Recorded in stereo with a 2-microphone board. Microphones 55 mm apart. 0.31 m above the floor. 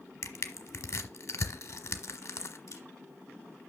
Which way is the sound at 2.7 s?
70° left (ahead or behind).